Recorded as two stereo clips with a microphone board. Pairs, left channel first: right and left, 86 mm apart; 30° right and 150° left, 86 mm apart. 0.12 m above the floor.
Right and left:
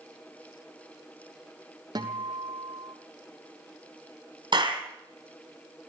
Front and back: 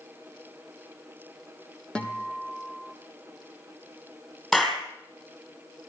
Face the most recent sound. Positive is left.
turn(degrees=60)